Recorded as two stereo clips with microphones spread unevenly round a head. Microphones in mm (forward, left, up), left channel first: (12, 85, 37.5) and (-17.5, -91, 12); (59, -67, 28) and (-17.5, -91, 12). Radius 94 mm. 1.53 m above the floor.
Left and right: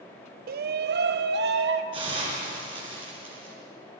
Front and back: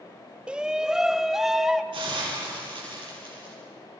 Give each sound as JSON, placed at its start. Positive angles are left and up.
{"t": 0.5, "sound": "a shout", "azimuth_deg": -95, "distance_m": 0.6}
{"t": 1.9, "sound": "a hiss", "azimuth_deg": -165, "distance_m": 7.5}